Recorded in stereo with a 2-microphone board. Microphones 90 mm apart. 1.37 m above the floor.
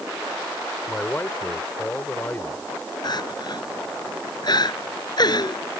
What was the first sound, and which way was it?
A man speaking, 20° left (ahead or behind).